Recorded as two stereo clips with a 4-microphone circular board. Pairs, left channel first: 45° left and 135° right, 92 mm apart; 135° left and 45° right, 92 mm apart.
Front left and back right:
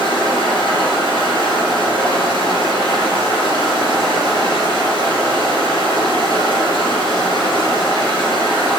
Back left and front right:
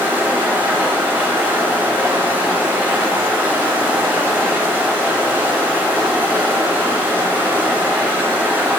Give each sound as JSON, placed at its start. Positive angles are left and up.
{"t": 0.0, "sound": "running water", "azimuth_deg": 20, "distance_m": 3.0}